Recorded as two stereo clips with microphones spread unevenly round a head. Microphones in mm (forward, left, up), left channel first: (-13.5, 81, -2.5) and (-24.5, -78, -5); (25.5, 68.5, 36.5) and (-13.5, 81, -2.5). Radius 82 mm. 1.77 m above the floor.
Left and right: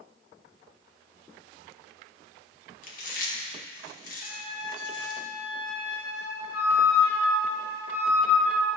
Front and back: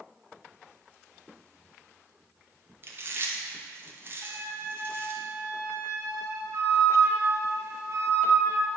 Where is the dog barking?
No dog barking in this recording.